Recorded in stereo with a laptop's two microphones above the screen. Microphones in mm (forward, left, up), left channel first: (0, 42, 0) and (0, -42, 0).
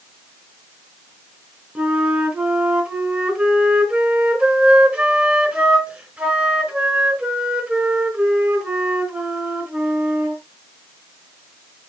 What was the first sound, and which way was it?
A flute, 15° right (ahead or behind).